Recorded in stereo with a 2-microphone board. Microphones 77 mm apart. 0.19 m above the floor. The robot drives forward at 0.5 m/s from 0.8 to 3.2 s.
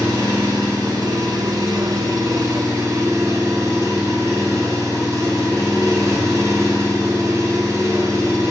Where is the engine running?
45° right (ahead or behind), 1.0 m; by 8.5 s 40° right (ahead or behind), 1.1 m.